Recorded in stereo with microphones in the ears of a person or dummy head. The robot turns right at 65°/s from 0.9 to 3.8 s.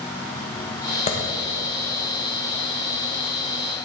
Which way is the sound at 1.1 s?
35° left (ahead or behind).